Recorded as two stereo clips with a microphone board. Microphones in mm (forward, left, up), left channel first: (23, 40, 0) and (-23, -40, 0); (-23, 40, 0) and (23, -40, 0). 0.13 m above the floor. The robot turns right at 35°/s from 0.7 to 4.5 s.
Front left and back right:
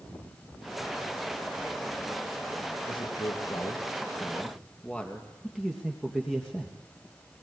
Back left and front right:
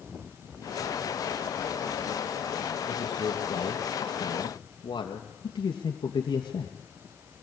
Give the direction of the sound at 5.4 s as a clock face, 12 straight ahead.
7 o'clock.